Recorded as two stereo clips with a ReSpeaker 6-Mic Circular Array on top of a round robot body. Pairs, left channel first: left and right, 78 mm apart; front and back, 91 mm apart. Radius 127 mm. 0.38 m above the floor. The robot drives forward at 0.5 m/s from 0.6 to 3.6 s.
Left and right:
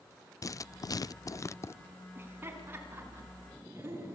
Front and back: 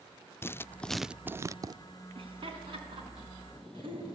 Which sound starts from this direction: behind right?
Laughter, at 2.1 s.